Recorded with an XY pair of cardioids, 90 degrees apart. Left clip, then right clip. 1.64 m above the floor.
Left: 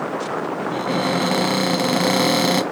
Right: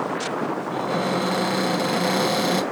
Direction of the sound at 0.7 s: 50° left.